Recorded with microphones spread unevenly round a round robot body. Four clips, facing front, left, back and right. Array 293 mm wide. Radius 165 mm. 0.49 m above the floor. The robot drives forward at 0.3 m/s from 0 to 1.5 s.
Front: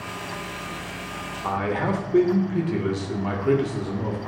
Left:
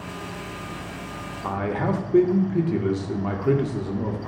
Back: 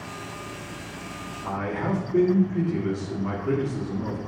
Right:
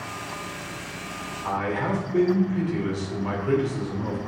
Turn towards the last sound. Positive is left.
turn(degrees=70)